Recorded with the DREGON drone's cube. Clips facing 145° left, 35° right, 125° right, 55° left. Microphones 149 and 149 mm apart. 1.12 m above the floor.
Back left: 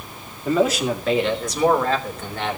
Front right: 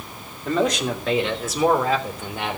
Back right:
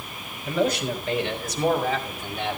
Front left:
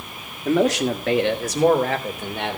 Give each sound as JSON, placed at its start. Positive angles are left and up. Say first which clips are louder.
{"t": 0.5, "sound": "a man speaking", "louder": "back left 2 dB, front left 5 dB", "azimuth_deg": 65, "distance_m": 2.5}